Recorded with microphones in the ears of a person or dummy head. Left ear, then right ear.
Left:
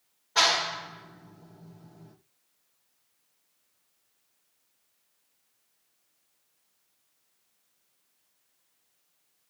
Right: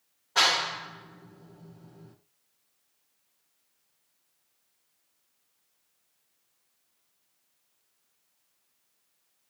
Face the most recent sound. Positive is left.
turn(degrees=-5)  # may be behind; listen again after turning